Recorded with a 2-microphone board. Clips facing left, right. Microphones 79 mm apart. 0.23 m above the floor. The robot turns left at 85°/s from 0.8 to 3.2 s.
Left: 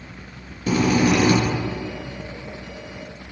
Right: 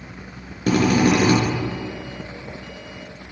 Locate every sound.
0.7 s a drill: 90° right, 3 m; by 1.4 s 140° right, 3 m